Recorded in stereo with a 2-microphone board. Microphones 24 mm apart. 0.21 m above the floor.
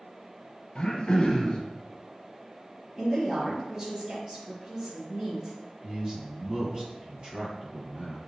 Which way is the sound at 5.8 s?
40° right (ahead or behind).